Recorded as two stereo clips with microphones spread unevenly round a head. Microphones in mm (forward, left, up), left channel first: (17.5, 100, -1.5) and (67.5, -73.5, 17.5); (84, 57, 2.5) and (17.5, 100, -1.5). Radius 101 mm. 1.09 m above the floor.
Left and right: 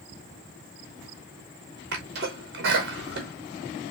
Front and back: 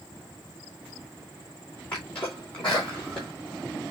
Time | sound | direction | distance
1.9 | a sneeze | 120° right | 2 m